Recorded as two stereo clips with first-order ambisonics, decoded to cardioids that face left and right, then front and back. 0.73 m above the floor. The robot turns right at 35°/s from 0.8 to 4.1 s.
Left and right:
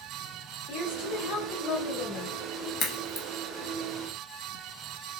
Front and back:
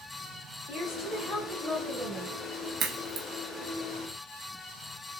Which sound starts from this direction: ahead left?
A woman speaking, at 0.7 s.